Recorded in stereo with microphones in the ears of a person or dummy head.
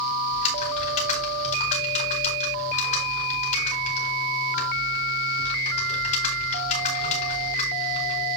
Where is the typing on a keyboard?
45° left (ahead or behind), 4.5 m.